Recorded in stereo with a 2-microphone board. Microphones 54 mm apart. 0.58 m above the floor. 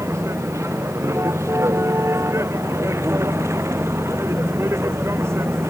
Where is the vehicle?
55° right (ahead or behind); by 5.7 s 50° right (ahead or behind).